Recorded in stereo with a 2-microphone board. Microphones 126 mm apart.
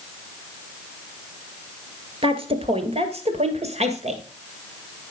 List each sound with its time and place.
2.2 s a woman speaking: 50° right (ahead or behind), 1.5 m; by 4.2 s 60° right (ahead or behind), 2.5 m